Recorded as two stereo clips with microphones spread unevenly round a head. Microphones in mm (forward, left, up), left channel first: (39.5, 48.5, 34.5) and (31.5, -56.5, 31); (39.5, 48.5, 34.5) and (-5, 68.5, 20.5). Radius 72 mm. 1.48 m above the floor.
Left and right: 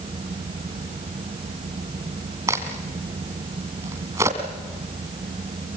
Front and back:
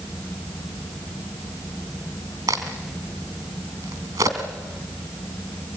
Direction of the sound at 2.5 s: 160° right.